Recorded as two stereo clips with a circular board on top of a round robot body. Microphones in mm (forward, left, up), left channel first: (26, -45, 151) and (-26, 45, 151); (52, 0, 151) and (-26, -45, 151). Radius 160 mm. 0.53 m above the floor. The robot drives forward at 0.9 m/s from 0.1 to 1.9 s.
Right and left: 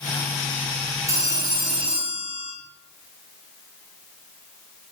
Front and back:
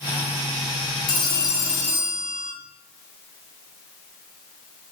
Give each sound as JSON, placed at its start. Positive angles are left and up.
{"t": 1.1, "sound": "a phone ringing", "azimuth_deg": 65, "distance_m": 1.6}